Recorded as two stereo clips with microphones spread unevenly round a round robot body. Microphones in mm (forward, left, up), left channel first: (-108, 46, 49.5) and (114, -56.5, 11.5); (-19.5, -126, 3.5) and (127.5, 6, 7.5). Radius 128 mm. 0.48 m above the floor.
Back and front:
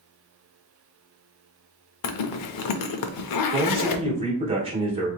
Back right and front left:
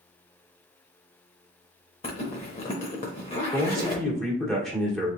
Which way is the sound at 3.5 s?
50° right.